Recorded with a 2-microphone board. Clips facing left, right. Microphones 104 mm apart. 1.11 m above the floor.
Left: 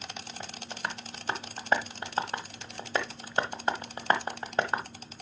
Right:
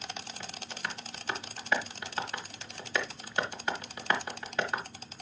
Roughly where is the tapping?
Left.